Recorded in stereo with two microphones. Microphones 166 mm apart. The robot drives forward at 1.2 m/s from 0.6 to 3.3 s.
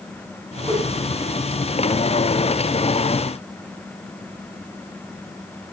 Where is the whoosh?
10° right (ahead or behind), 4.5 m.